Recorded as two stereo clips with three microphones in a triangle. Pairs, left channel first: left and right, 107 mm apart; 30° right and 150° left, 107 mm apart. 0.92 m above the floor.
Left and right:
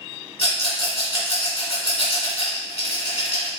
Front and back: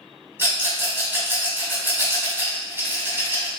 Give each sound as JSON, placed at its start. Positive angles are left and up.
{"t": 0.4, "sound": "a rattle", "azimuth_deg": 80, "distance_m": 1.9}